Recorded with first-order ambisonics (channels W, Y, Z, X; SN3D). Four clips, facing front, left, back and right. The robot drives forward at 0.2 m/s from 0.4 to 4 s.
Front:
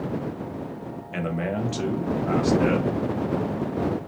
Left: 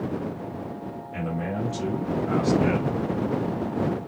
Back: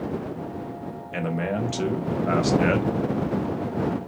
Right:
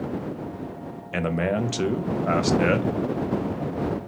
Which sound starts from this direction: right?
A man speaking, at 1.1 s.